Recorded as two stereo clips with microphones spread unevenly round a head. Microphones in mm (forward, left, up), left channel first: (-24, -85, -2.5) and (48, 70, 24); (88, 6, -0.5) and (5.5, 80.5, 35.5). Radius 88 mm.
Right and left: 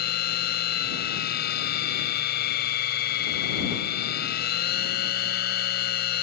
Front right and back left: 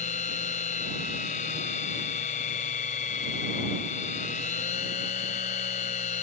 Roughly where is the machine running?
Right.